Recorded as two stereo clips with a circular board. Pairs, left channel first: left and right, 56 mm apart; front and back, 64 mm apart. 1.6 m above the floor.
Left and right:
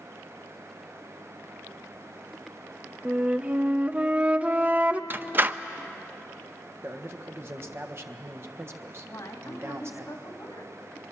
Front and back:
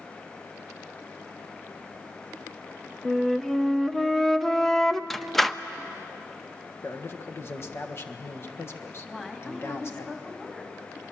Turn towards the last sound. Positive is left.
turn(degrees=80)